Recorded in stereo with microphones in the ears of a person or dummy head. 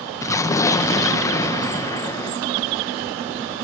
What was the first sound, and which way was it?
An explosion, 15° left (ahead or behind).